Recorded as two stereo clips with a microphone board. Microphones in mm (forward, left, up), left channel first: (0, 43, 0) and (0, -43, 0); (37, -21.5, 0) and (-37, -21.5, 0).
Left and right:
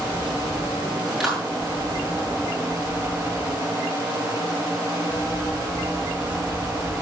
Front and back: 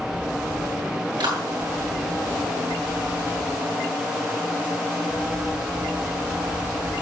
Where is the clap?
Straight behind, 7.5 m.